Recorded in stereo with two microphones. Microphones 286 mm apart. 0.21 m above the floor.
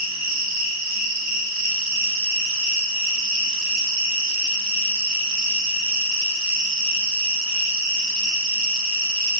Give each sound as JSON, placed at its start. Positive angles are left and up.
{"t": 0.0, "sound": "an insect", "side_deg": -50, "distance_m": 1.7}